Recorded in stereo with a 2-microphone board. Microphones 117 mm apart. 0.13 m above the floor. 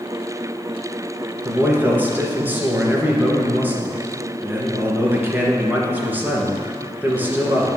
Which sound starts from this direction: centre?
A man speaking, at 1.4 s.